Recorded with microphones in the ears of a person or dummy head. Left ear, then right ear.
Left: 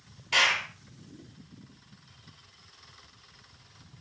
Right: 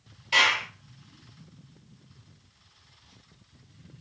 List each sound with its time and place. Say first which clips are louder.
0.3 s a clap: right 2 dB; centre (ahead or behind), 1.5 m